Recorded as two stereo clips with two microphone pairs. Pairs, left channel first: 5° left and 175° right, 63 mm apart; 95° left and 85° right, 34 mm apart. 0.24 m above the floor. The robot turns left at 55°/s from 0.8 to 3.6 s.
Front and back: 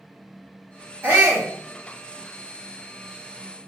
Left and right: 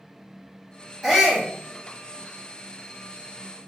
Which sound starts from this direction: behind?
A shout, at 1.0 s.